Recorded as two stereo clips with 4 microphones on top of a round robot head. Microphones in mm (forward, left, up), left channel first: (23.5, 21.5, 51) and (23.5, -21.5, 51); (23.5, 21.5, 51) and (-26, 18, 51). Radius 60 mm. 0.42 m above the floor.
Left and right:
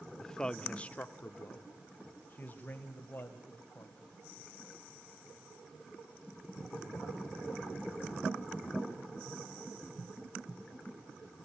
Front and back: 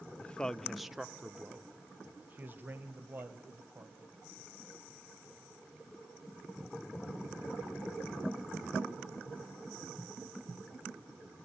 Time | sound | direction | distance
0.2 | a man speaking | 25° left | 0.8 m